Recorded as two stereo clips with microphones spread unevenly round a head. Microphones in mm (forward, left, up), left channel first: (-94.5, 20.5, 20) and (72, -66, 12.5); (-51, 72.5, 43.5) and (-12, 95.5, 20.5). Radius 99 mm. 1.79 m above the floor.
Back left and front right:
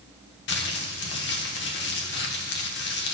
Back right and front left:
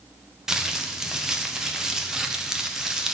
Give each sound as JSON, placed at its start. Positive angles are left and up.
{"t": 0.5, "sound": "crumpling", "azimuth_deg": 120, "distance_m": 1.2}